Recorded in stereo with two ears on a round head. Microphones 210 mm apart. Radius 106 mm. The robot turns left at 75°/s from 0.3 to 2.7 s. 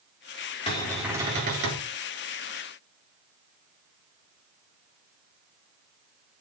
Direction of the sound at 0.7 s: 25° left.